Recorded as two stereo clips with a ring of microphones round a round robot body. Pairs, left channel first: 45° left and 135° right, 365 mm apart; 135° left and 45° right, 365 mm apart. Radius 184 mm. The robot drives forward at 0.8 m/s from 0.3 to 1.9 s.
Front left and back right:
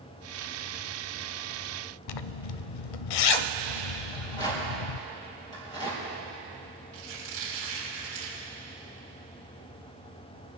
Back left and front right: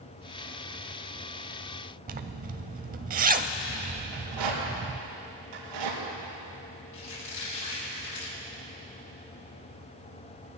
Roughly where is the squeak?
Behind.